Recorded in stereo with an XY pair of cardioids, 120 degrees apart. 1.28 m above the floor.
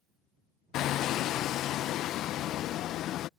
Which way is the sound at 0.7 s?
65° left.